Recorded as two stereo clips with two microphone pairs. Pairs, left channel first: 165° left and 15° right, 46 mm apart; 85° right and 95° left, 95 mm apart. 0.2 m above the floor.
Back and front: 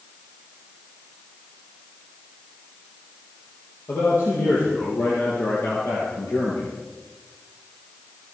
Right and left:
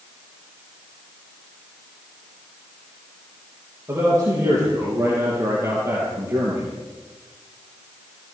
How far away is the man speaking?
About 7 m.